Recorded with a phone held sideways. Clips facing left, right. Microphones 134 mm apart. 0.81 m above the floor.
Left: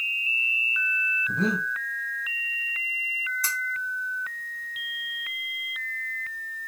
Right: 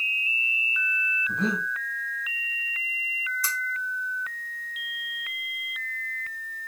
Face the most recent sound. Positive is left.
turn(degrees=60)  # may be behind; listen again after turning